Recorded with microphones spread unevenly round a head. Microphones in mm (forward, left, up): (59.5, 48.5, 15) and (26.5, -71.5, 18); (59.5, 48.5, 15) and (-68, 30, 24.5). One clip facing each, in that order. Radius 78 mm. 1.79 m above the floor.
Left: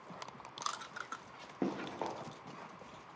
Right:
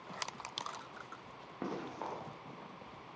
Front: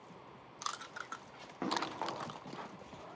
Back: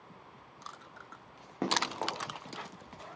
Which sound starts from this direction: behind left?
Running footsteps, at 1.6 s.